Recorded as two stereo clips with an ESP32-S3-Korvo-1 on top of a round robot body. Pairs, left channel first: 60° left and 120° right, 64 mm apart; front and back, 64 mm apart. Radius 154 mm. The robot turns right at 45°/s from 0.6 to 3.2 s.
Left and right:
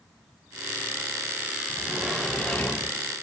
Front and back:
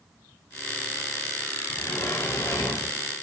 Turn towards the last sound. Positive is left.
turn(degrees=20)